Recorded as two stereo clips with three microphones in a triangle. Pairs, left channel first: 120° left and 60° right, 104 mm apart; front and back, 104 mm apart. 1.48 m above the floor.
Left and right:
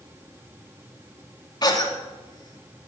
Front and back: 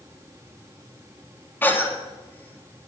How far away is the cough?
About 3 m.